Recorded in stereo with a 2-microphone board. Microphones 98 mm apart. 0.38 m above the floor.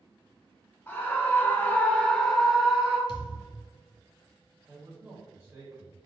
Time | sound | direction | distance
0.9 | a scream | 20° left (ahead or behind) | 1.1 m
3.1 | a thud | 45° left (ahead or behind) | 0.9 m
4.7 | a man speaking | 30° right (ahead or behind) | 1.6 m